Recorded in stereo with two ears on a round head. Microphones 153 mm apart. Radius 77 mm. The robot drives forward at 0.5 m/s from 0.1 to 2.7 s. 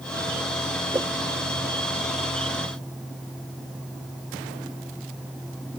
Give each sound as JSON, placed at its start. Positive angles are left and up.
{"t": 0.9, "sound": "a whoosh", "side_deg": -15}